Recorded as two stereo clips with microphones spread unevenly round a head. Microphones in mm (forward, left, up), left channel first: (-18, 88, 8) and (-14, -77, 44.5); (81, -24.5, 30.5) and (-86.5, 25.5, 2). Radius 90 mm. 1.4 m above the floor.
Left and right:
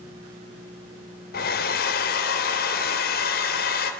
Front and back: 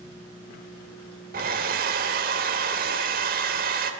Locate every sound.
1.3 s a hair dryer: 125° left, 3 m